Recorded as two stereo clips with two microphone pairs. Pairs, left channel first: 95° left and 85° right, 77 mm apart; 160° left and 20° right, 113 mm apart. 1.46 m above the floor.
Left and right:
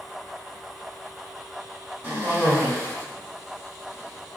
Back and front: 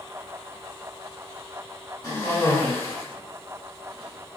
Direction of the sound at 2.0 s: 145° right.